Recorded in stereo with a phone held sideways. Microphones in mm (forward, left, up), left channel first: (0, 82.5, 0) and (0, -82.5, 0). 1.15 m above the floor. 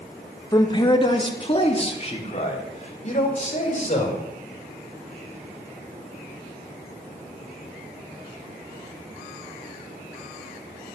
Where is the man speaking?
25° left (ahead or behind), 1.6 m; by 4.2 s 45° left (ahead or behind), 5.5 m.